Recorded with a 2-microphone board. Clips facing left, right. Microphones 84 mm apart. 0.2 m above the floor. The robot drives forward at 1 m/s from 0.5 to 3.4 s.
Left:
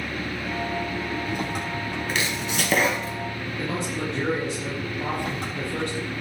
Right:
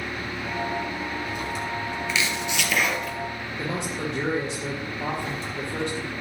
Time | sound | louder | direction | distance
0.0 | an engine running | left 1 dB | 50° left (ahead or behind) | 7.5 m
2.1 | chopping | even | 50° left (ahead or behind) | 1.8 m
3.6 | a man speaking | left 1 dB | 5° right (ahead or behind) | 3.5 m